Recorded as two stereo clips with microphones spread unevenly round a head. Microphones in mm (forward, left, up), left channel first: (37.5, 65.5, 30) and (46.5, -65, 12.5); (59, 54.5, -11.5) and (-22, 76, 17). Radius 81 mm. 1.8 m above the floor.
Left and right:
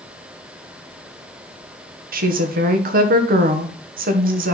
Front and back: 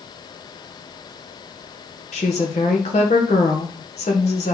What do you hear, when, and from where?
2.1 s a woman speaking: 65° right, 1.5 m